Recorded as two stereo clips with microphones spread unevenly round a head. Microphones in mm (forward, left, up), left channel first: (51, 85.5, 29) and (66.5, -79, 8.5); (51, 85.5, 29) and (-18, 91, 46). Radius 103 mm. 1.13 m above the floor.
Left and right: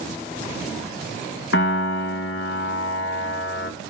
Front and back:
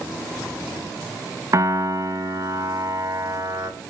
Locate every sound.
1.5 s a piano: 130° left, 1.0 m